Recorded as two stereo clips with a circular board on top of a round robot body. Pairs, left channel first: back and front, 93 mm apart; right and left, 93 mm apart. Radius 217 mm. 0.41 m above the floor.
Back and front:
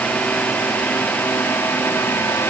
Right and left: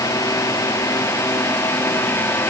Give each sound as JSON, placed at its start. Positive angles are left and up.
{"t": 0.0, "sound": "a drone", "azimuth_deg": -110}